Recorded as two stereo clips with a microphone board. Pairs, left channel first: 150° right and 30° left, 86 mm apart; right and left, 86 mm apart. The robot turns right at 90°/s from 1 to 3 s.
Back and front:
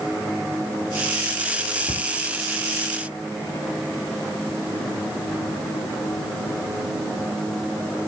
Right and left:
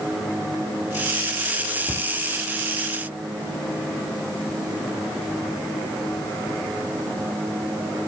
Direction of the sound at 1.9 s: 165° right.